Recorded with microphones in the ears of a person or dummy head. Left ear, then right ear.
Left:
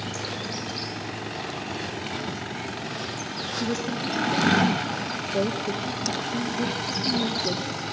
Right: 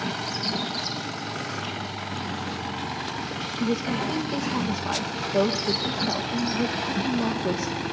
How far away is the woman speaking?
About 2 m.